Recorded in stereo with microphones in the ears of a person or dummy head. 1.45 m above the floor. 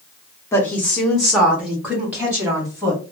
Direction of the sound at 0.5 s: 10° left (ahead or behind).